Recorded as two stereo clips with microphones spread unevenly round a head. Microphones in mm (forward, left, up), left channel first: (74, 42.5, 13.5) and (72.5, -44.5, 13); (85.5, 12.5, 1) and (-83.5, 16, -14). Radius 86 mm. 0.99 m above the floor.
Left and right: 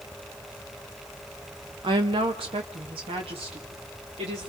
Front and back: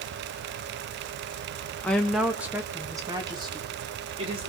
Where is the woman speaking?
85° right, 0.9 m; by 4.5 s 125° right, 2.5 m.